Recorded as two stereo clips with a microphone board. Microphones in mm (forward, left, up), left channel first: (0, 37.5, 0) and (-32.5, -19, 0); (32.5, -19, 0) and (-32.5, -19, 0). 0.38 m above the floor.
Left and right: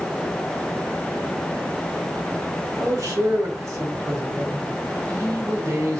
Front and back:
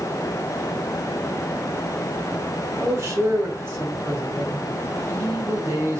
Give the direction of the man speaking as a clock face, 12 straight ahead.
5 o'clock.